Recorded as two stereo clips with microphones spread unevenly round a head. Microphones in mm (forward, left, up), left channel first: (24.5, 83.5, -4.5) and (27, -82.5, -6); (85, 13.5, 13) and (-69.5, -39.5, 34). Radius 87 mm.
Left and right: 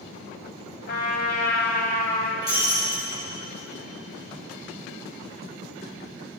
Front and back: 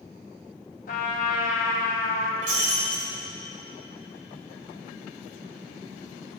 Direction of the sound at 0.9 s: 65° left.